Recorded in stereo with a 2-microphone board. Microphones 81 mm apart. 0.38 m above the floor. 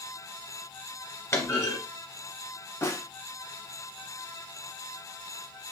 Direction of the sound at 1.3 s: 35° left (ahead or behind).